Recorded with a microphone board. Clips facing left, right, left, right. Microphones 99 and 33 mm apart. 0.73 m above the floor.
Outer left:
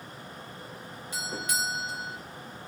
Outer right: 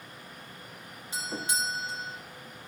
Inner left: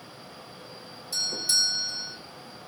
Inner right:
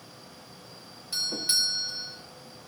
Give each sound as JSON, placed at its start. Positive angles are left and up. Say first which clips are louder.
{"t": 1.1, "sound": "a doorbell", "louder": "even, inner left 1 dB", "side_deg": -25, "distance_m": 2.0}